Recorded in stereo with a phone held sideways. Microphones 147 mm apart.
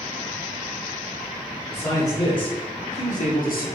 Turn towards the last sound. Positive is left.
turn(degrees=80)